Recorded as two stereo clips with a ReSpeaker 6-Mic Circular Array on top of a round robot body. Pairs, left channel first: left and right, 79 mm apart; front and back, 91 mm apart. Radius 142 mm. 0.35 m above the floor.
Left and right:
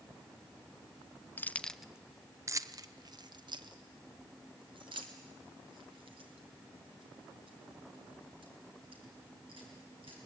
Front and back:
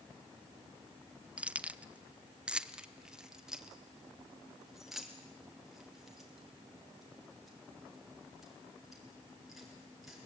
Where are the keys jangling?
115° left, 0.8 m; by 10.2 s 90° right, 5.5 m.